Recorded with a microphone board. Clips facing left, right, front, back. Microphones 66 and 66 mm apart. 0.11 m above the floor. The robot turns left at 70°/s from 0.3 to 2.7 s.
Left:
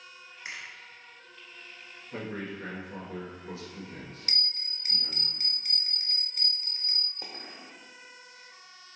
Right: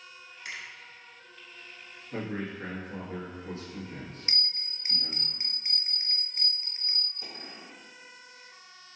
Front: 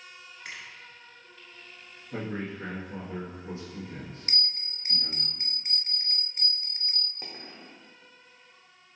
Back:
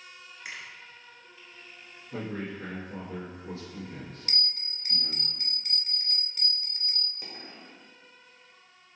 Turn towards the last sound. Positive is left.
turn(degrees=50)